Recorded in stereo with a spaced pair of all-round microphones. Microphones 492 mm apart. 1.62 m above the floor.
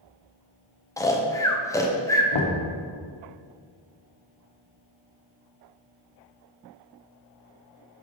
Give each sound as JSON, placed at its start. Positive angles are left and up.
{"t": 1.0, "sound": "snoring", "side_deg": 5, "distance_m": 0.6}
{"t": 2.3, "sound": "knocking", "side_deg": 65, "distance_m": 0.9}